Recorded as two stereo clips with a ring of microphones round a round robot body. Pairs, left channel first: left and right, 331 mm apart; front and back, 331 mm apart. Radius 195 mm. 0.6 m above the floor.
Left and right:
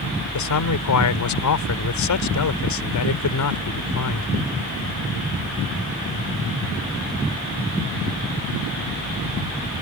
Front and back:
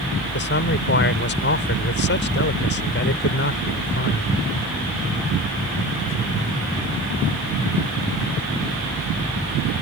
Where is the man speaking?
60° left.